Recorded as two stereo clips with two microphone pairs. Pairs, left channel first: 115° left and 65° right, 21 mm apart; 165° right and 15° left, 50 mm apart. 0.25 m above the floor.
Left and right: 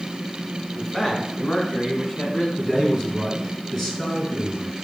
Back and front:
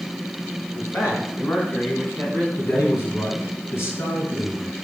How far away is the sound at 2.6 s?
About 3 m.